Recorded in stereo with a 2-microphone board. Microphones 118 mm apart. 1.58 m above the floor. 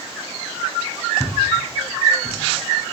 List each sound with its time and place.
1.2 s footsteps: 5° right (ahead or behind), 1.6 m; by 2.4 s 20° right (ahead or behind), 1.6 m